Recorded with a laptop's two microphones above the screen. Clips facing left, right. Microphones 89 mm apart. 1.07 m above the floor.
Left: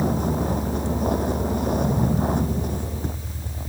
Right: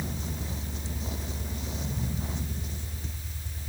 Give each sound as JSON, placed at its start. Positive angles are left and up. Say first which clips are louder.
{"t": 0.0, "sound": "a vehicle", "louder": "left 14 dB", "side_deg": 55}